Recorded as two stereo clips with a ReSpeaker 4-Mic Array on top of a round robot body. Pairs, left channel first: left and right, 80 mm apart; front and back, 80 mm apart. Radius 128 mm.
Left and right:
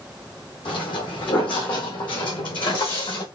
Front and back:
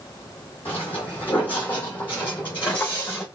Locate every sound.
0.7 s footsteps: 70° left, 2 m